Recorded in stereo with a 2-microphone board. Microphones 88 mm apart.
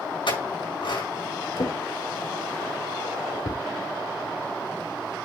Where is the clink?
75° left (ahead or behind), 4.5 m.